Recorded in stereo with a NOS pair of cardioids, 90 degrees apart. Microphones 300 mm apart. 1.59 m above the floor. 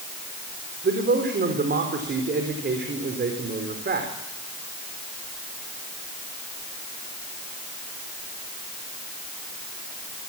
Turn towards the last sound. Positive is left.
turn(degrees=-35)